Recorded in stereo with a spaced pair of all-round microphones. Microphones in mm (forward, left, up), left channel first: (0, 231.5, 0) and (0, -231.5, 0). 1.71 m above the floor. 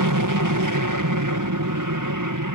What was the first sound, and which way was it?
An aircraft, 40° right (ahead or behind).